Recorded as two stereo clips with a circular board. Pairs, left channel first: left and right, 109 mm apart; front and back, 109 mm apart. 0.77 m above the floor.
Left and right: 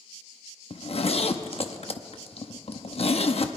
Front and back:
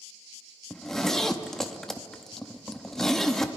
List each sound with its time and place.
0.7 s a zipper: 85° left, 0.7 m